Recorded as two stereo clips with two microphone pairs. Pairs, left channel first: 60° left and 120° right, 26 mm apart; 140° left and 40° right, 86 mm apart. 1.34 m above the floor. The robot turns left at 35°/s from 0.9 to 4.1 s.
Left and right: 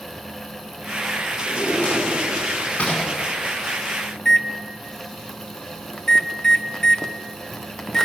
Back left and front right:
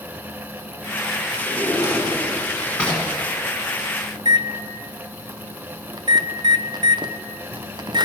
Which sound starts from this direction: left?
A drawer, at 1.5 s.